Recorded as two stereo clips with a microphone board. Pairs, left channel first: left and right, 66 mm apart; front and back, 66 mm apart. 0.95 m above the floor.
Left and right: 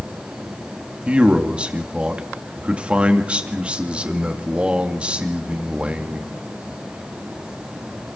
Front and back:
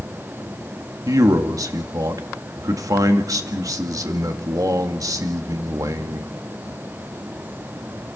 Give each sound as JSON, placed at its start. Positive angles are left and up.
{"t": 1.1, "sound": "a man speaking", "azimuth_deg": -160, "distance_m": 2.0}